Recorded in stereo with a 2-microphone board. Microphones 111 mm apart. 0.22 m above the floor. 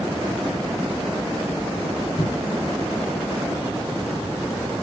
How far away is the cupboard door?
About 1.6 m.